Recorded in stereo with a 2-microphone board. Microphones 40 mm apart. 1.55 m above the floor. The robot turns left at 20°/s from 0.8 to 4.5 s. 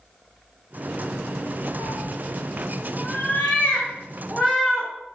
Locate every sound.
1.8 s a cat meowing: 70° left (ahead or behind), 3 m; by 4.9 s 20° left (ahead or behind), 3 m